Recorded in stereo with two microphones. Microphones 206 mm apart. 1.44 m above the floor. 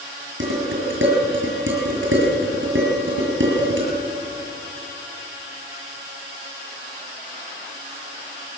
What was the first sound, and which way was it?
Dishes clattering, 70° right (ahead or behind).